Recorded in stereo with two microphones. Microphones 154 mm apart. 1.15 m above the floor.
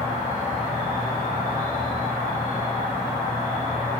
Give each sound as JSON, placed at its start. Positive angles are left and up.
{"t": 0.0, "sound": "an insect", "side_deg": 25, "distance_m": 1.5}